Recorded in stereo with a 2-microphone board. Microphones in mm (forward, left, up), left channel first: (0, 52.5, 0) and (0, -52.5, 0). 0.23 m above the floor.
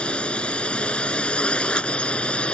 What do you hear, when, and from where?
0.0 s a drone: 10° left (ahead or behind)